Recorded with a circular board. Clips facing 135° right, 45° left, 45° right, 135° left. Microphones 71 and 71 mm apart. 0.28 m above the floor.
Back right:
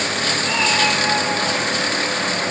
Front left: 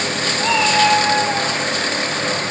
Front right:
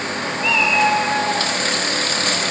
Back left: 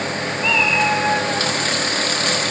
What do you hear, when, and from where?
0.4 s a cat meowing: 40° left, 5 m; by 1.5 s 45° left, 6 m